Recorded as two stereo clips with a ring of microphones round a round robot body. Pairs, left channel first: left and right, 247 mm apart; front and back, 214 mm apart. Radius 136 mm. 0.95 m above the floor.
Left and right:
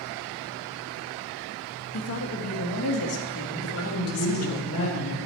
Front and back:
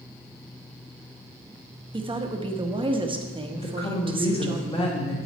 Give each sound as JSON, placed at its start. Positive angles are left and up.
{"t": 1.9, "sound": "a woman speaking", "azimuth_deg": 115, "distance_m": 1.2}
{"t": 3.6, "sound": "a woman speaking", "azimuth_deg": 60, "distance_m": 2.0}